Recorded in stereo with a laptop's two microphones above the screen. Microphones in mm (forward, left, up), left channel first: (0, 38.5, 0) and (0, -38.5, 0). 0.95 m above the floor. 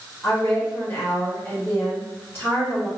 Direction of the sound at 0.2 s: 35° left (ahead or behind).